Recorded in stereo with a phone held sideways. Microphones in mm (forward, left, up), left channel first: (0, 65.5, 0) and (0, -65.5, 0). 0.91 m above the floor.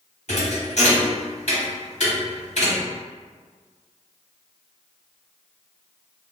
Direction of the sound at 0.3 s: 60° left (ahead or behind).